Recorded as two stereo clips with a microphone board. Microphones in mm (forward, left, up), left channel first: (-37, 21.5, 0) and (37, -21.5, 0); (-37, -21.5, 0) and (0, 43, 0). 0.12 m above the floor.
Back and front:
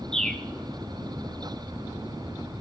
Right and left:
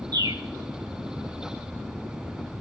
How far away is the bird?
About 0.8 m.